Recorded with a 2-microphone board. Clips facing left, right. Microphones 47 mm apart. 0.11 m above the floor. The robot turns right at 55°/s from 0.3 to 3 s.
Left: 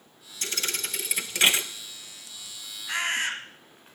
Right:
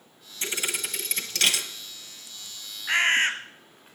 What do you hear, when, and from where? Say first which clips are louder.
0.4 s a thud: right 2 dB; 35° right, 0.8 m; by 1.6 s 35° left, 0.8 m
2.9 s a bird: right 6 dB; 50° right (ahead or behind), 1.0 m